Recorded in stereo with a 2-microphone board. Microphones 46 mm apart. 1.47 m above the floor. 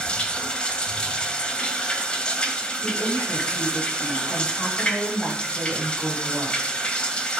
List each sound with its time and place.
0.0 s running water: 20° left (ahead or behind), 2.5 m
2.8 s a woman speaking: 80° left, 7.5 m